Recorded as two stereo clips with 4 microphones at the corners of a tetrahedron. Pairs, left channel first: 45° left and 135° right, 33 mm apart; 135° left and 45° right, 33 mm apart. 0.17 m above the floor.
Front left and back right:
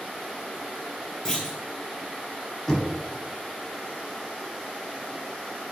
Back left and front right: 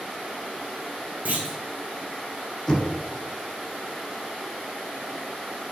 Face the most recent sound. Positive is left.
turn(degrees=95)